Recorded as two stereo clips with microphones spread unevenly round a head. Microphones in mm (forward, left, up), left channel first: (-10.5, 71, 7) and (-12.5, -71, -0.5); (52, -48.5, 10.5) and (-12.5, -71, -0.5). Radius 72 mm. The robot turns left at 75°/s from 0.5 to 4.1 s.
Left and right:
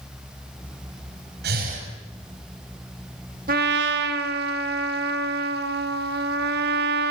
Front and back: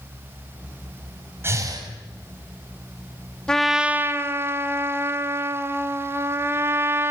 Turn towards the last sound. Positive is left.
turn(degrees=-105)